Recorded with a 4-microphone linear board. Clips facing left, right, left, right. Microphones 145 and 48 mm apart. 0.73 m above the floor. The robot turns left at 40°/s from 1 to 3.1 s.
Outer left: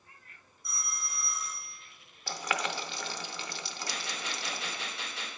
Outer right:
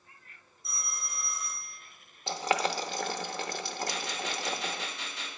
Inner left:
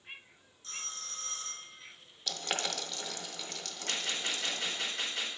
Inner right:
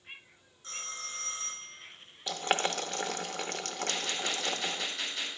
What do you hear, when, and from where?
0.6 s a phone ringing: 150° right, 1.5 m; by 1.8 s 175° left, 1.5 m
2.3 s boiling: 20° right (ahead or behind), 0.6 m; by 4.9 s 50° right (ahead or behind), 0.6 m
3.9 s a gunshot: 75° left (ahead or behind), 3.5 m